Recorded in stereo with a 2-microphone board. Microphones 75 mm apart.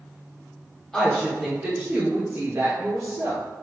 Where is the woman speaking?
15° left (ahead or behind), 0.8 m; by 3.5 s 50° right (ahead or behind), 1.1 m.